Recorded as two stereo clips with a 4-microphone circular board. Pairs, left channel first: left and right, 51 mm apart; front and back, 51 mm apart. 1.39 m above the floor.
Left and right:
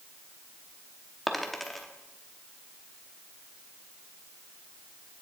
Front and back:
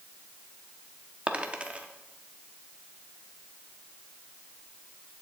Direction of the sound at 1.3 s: 175° left.